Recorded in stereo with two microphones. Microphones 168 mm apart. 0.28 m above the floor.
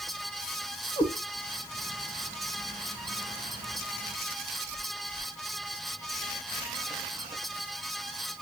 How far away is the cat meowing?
About 0.5 m.